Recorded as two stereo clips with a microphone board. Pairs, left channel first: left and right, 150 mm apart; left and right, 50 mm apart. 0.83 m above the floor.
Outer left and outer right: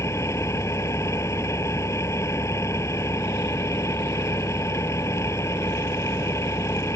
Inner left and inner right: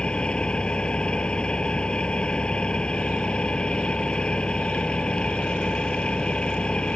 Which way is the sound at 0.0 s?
20° left (ahead or behind).